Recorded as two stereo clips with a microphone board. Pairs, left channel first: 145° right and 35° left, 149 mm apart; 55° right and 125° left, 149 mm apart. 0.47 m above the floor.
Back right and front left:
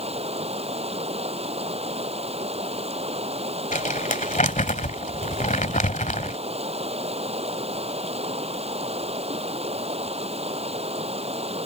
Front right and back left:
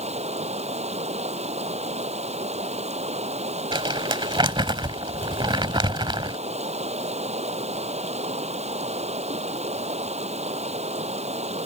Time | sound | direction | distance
0.0 | running water | 80° left | ?
3.7 | crumpling | straight behind | ?